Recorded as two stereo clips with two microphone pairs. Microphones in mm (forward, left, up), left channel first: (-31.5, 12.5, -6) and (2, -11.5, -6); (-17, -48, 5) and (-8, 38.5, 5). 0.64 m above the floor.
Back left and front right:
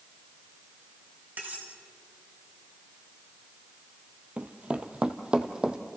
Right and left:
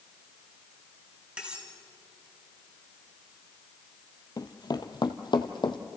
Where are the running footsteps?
80° right, 0.9 m; by 5.8 s 105° right, 1.4 m.